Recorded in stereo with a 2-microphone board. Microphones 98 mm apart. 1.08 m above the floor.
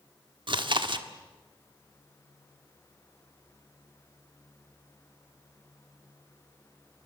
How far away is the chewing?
About 1.4 m.